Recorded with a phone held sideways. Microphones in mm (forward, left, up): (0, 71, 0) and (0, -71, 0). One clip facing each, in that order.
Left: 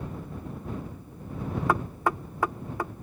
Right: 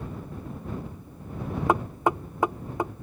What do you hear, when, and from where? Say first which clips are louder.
1.7 s knocking: right 4 dB; 20° right (ahead or behind)